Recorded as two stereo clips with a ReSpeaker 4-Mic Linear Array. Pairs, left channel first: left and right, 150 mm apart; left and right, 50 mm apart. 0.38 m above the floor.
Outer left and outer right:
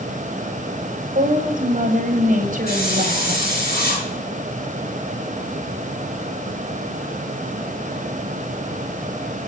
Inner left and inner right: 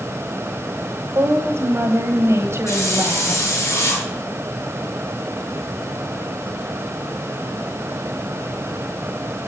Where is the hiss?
80° left, 6 m.